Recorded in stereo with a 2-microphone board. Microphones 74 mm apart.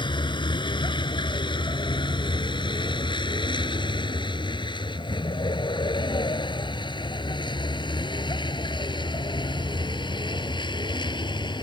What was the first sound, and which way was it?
A vehicle, 85° left.